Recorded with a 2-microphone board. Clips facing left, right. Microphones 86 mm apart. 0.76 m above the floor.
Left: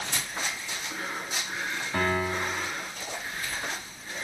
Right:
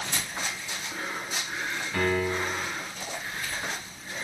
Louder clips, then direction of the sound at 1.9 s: Right 1 dB; 25° left (ahead or behind).